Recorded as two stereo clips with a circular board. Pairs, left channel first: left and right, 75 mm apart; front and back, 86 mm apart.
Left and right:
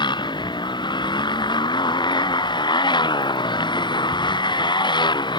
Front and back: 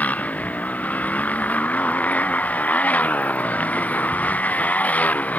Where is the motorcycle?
75° left.